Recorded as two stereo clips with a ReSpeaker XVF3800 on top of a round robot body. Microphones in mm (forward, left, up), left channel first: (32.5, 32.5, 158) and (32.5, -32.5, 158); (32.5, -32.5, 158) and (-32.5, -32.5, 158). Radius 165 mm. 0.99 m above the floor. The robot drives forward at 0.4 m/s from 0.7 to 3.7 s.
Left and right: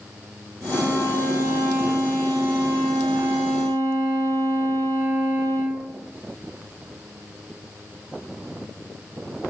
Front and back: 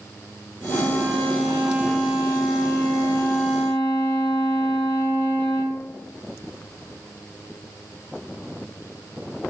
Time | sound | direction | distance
0.7 | a violin | 30° right | 2.0 m